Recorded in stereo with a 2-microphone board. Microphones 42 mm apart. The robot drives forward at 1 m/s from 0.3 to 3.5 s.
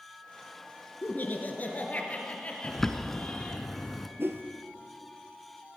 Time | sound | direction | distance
1.0 | laughter | 50° left (ahead or behind) | 1.9 m
2.6 | a bird | 5° left (ahead or behind) | 0.7 m
4.2 | a whoosh | 70° right (ahead or behind) | 0.9 m